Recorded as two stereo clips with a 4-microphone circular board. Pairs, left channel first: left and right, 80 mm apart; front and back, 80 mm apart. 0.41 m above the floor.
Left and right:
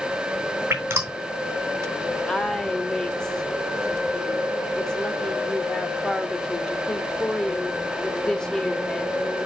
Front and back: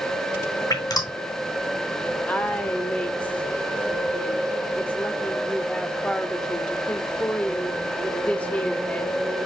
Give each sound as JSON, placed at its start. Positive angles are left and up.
{"t": 0.7, "sound": "dripping", "azimuth_deg": -30, "distance_m": 2.5}
{"t": 2.3, "sound": "a woman speaking", "azimuth_deg": 30, "distance_m": 0.9}